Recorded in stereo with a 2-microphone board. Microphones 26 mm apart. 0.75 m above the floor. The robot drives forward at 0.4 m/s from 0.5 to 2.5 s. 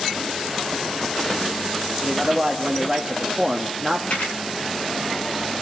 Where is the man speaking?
10° right (ahead or behind), 1.3 m.